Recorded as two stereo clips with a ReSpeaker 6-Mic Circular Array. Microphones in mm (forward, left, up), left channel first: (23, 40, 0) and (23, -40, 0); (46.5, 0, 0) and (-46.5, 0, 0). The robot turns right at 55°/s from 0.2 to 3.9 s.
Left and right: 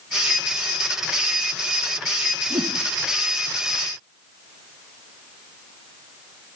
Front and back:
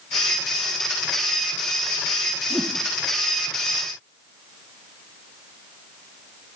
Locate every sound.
2.5 s a whoosh: 95° right, 1.6 m; by 2.8 s 80° right, 1.6 m